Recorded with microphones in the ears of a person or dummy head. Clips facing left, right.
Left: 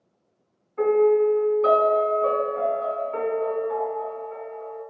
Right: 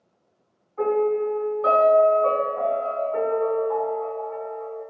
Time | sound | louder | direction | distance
0.8 | a piano | left 4 dB | 35° left (ahead or behind) | 1.3 m